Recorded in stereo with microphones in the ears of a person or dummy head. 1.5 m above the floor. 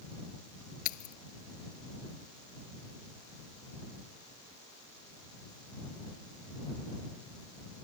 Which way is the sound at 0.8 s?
45° left (ahead or behind).